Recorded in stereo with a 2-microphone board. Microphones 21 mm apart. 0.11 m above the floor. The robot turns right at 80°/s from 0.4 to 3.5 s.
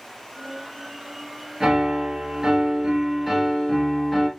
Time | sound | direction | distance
1.6 | a piano | 130° right | 1.8 m